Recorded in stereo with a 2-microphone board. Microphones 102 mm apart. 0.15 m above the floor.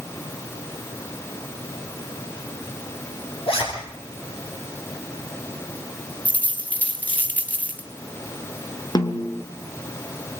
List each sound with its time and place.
3.5 s a zipper: 65° left (ahead or behind), 7.5 m
6.2 s a dropped coin: 15° left (ahead or behind), 2 m
8.9 s a snare drum: 45° left (ahead or behind), 2.5 m